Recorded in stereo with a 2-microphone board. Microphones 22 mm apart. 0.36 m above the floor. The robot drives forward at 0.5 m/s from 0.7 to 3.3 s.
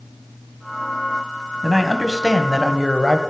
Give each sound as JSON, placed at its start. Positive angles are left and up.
{"t": 1.6, "sound": "a man speaking", "side_deg": 10, "distance_m": 2.0}